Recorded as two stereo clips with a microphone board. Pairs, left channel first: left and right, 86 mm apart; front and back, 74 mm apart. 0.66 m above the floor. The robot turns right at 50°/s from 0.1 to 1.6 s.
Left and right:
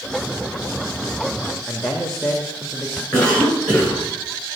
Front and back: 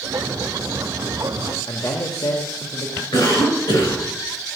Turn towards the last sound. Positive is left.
turn(degrees=15)